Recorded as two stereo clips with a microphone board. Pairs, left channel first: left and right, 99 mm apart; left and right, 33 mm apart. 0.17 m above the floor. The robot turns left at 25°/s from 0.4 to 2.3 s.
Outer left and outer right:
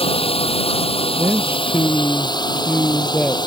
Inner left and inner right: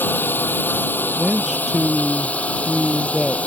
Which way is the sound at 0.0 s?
95° left.